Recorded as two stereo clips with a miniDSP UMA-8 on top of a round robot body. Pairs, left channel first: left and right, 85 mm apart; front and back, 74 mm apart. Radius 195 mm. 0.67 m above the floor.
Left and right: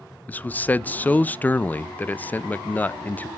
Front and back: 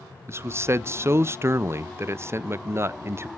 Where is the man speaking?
150° left, 0.5 m.